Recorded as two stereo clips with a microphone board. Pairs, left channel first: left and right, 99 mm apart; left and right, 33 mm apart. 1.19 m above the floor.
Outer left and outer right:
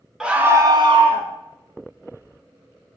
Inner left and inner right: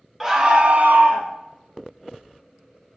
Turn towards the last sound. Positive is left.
turn(degrees=-65)  # may be behind; listen again after turning